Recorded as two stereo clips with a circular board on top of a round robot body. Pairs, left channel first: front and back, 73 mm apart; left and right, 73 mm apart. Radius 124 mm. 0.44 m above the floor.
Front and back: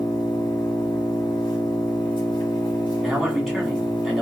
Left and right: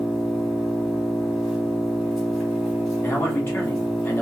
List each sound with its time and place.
0.0 s an engine running: 10° right, 1.7 m
3.0 s a man speaking: 105° left, 1.5 m